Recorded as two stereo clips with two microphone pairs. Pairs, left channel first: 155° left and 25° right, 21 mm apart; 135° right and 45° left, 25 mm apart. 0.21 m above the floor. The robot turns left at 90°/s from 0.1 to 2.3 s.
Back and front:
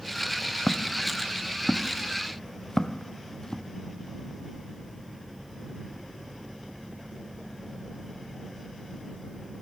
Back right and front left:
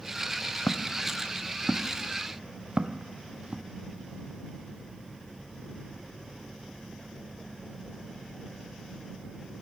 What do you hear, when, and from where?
0.7 s footsteps: 115° right; by 3.6 s 100° left